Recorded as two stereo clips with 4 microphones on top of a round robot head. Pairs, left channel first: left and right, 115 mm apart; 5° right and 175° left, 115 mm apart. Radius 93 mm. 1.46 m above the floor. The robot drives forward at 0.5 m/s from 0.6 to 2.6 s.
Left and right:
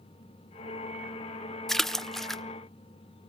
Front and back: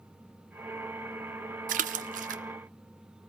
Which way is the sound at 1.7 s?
175° left.